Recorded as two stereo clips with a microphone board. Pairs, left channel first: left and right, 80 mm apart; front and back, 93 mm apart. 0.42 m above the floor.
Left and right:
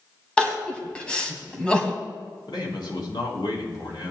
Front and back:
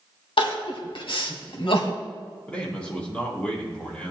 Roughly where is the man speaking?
Left.